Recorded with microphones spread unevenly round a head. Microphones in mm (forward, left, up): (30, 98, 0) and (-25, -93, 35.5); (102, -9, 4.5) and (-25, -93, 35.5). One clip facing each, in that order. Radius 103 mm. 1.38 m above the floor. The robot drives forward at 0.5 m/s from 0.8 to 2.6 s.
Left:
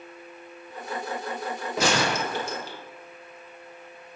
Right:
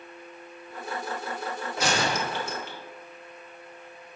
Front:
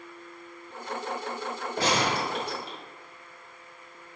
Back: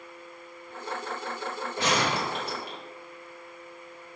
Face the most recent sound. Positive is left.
turn(degrees=135)